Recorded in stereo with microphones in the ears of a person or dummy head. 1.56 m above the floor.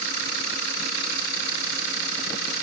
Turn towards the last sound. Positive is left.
No sound to turn to.